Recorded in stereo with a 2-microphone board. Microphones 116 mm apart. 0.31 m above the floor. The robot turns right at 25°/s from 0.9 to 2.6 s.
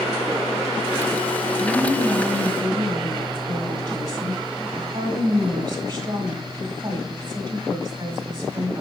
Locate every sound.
1.6 s a woman speaking: 20° right (ahead or behind), 1.1 m; by 8.8 s 30° right (ahead or behind), 1.1 m